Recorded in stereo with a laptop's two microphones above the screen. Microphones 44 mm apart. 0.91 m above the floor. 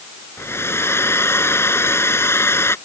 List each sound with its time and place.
0.4 s a hair dryer: 70° left (ahead or behind)